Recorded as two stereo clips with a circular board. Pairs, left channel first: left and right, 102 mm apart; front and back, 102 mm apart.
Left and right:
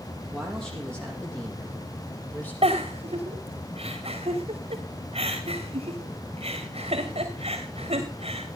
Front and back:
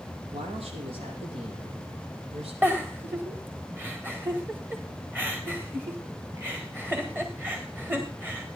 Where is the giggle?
110° right, 2.5 m.